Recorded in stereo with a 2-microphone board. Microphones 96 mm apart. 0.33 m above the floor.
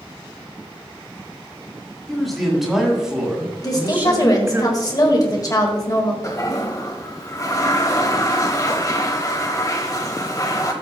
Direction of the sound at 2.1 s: Centre (ahead or behind).